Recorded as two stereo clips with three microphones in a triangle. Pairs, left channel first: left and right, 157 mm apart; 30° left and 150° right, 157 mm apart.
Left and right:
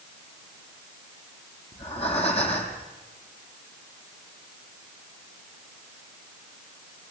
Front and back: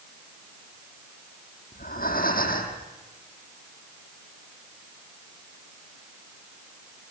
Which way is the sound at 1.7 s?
45° left.